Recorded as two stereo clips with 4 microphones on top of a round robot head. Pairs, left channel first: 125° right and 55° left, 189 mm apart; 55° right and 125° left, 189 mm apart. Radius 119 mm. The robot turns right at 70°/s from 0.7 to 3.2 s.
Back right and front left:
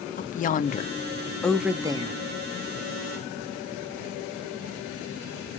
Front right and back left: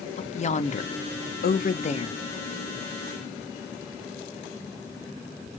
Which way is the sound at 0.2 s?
95° right.